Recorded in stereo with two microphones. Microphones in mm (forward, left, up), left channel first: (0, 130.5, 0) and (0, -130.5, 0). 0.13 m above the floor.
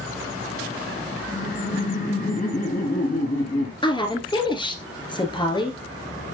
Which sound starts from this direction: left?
Laughter, at 1.3 s.